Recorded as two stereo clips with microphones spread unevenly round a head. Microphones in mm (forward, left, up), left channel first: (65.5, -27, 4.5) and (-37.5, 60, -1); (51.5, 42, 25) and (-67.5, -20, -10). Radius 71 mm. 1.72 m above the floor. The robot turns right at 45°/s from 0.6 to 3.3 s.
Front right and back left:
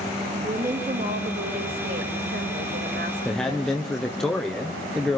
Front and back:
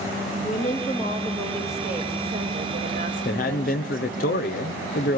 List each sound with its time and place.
0.4 s a woman speaking: 65° left, 3 m; by 4.2 s 170° right, 3 m
3.2 s a man speaking: 45° left, 0.9 m